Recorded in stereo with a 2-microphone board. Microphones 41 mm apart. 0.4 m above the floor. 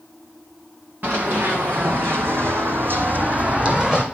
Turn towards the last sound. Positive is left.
turn(degrees=-20)  # may be behind; listen again after turning